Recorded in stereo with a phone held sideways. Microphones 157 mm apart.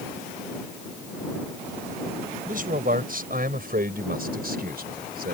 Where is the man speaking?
55° right (ahead or behind); by 5.3 s 70° right (ahead or behind).